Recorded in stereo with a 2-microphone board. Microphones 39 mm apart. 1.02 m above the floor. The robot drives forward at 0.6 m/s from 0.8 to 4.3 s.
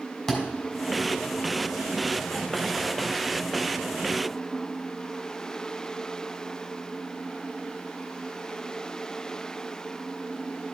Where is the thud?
15° left (ahead or behind), 3 m.